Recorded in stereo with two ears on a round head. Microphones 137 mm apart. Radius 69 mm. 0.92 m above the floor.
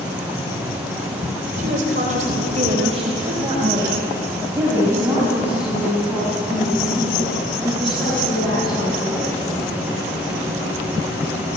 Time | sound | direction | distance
1.6 | a woman speaking | 65° right (ahead or behind) | 3.5 m